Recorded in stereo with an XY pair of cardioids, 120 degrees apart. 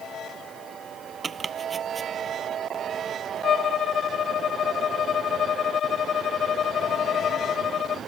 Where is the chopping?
30° right.